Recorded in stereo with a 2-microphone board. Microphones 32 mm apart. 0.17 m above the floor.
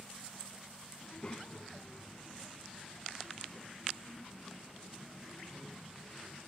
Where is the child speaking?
30° left (ahead or behind), 0.7 m; by 6.5 s 15° left (ahead or behind), 3.5 m.